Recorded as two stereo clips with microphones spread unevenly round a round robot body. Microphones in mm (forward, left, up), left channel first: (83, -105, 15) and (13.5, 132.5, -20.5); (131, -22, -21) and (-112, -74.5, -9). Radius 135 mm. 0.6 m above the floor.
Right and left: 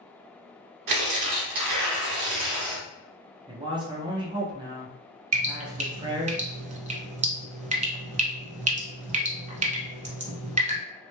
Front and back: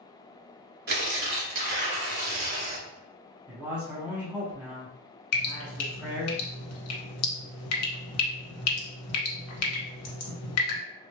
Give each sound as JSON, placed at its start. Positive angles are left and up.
{"t": 0.9, "sound": "tearing paper", "azimuth_deg": 135, "distance_m": 1.1}
{"t": 3.5, "sound": "a man speaking", "azimuth_deg": 105, "distance_m": 0.7}
{"t": 5.3, "sound": "dripping", "azimuth_deg": 40, "distance_m": 1.1}